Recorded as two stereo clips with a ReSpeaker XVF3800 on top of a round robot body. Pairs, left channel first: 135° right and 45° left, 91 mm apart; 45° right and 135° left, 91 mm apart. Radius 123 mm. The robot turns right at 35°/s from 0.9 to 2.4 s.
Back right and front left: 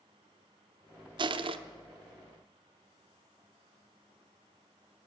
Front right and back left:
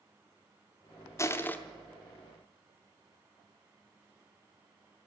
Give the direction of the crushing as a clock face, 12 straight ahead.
12 o'clock.